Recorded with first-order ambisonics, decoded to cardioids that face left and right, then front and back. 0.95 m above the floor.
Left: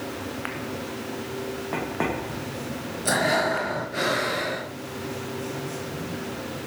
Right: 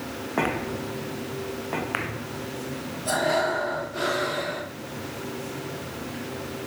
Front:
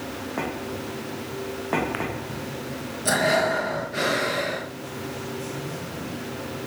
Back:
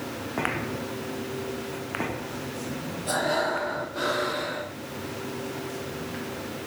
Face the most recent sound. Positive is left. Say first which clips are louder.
# left 1 dB, front 5 dB
turn(degrees=40)